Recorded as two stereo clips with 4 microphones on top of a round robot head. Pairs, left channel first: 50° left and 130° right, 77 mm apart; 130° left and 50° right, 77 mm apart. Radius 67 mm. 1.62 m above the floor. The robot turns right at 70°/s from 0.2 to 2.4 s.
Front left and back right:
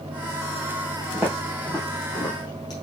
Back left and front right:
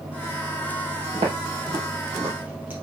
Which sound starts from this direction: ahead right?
Footsteps, at 1.1 s.